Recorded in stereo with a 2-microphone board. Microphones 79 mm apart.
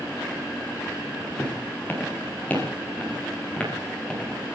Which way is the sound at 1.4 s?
25° left (ahead or behind).